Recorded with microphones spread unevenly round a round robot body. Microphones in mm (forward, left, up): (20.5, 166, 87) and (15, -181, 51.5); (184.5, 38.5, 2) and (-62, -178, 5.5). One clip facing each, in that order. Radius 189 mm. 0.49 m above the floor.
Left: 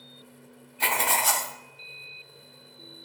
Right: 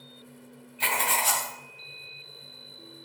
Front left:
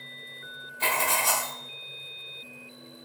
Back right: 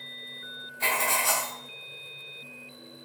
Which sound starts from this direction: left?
Writing, at 0.8 s.